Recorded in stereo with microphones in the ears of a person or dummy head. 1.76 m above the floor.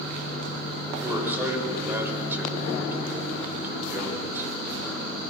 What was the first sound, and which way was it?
A man speaking, 5° right (ahead or behind).